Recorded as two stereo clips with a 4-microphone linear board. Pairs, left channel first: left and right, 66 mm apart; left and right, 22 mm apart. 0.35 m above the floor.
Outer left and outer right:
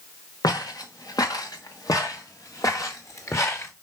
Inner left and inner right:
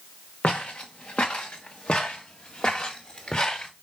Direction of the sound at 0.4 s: 80° left.